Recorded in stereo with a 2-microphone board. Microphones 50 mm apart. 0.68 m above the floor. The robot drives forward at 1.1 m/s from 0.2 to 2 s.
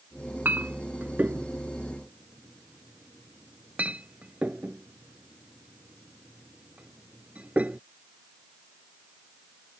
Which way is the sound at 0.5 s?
40° right (ahead or behind).